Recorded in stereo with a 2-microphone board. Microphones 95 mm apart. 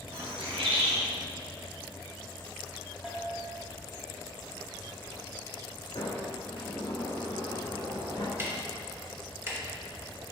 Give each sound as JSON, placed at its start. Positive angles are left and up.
{"t": 0.1, "sound": "a bird", "side_deg": -85, "distance_m": 2.0}
{"t": 3.0, "sound": "a bell", "side_deg": -5, "distance_m": 1.7}
{"t": 6.0, "sound": "a sliding door", "side_deg": 60, "distance_m": 2.5}
{"t": 8.4, "sound": "ticking", "side_deg": -25, "distance_m": 1.5}